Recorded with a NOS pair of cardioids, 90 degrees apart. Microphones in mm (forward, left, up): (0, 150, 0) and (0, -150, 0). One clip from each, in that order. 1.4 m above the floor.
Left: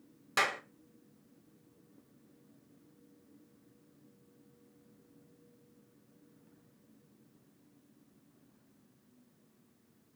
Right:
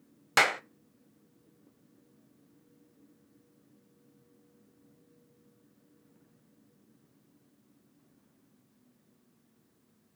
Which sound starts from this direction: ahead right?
A clap, at 0.4 s.